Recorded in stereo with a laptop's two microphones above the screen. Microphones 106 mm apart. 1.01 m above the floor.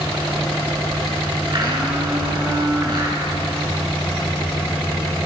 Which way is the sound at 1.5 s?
45° right (ahead or behind).